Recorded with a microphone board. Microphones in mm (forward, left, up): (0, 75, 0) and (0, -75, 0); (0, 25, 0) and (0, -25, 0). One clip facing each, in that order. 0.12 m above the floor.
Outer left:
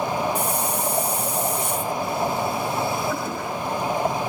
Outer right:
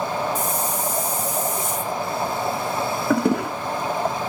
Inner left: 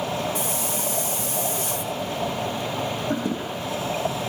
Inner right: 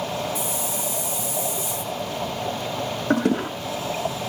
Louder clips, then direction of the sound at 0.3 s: Outer left 1 dB, inner left 1 dB; 65° left (ahead or behind).